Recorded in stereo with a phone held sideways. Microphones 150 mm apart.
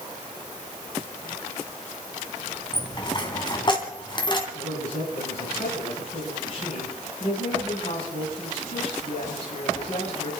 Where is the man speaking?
50° left (ahead or behind), 7.5 m.